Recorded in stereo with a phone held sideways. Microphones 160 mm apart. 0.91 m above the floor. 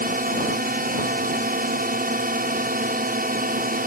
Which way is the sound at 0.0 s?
60° right (ahead or behind).